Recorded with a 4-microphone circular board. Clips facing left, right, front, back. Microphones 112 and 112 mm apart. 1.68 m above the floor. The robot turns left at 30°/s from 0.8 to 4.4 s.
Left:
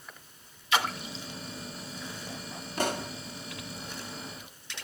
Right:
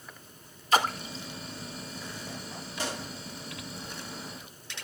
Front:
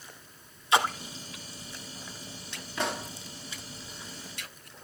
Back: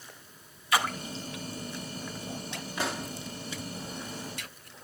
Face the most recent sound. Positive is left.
turn(degrees=45)